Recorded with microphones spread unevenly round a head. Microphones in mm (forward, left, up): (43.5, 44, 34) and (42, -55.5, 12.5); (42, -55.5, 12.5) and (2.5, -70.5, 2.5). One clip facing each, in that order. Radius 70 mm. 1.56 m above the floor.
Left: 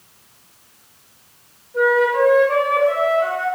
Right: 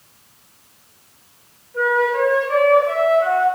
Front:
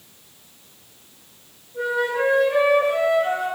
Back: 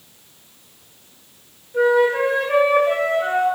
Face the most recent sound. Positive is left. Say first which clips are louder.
# left 2 dB, back 7 dB
turn(degrees=165)